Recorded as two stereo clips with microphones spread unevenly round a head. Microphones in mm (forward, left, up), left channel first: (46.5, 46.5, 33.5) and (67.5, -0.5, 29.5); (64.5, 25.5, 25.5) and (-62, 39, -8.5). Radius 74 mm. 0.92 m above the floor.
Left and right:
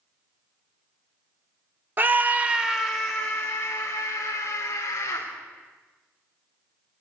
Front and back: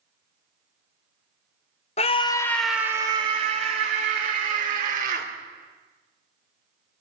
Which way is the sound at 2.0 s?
45° right.